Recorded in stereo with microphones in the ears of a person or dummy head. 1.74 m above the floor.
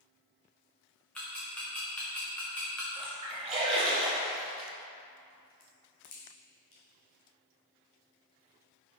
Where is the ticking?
5° left (ahead or behind), 1.0 m.